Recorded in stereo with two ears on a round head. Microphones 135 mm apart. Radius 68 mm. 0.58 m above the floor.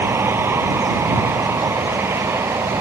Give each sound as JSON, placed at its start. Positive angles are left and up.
{"t": 0.0, "sound": "a vehicle", "side_deg": -15}